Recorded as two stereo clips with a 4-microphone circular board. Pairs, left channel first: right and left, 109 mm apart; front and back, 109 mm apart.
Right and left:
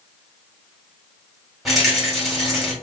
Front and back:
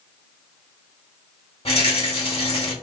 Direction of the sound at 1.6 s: Straight ahead.